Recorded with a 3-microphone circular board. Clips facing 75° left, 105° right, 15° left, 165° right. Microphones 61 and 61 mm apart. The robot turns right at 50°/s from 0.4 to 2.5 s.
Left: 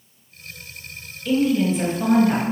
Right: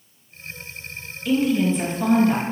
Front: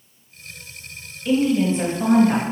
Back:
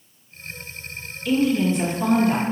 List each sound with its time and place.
1.2 s a woman speaking: 30° right, 1.8 m; by 2.4 s 30° left, 1.8 m